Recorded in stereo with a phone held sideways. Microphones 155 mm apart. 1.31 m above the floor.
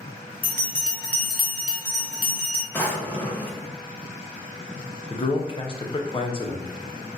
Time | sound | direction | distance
0.4 | a bell | 65° right (ahead or behind) | 0.6 m
2.7 | a drawer | 10° left (ahead or behind) | 0.7 m
5.1 | a man speaking | 35° left (ahead or behind) | 0.6 m